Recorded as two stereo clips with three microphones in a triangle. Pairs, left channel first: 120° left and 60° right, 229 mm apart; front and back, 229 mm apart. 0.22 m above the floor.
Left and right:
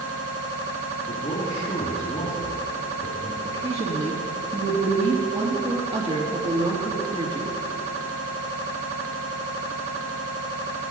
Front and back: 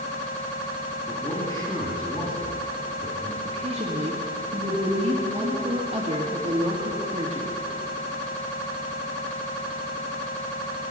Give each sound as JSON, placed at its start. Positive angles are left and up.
{"t": 1.1, "sound": "a man speaking", "azimuth_deg": 70, "distance_m": 2.5}
{"t": 3.5, "sound": "a woman speaking", "azimuth_deg": -120, "distance_m": 4.0}